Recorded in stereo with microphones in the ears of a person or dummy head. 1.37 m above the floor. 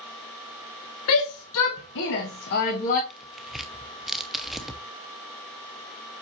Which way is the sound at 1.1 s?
85° left.